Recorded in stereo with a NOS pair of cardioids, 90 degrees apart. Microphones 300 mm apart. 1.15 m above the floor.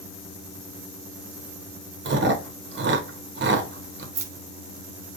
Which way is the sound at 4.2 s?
60° right.